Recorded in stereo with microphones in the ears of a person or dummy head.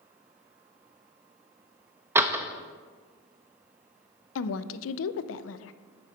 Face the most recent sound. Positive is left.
turn(degrees=70)  # may be behind; listen again after turning